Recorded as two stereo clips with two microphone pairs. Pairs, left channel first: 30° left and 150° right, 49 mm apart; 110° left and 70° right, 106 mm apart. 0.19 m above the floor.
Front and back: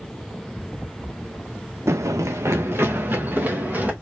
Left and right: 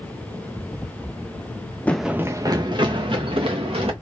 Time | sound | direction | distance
1.9 | running footsteps | 175° right | 0.6 m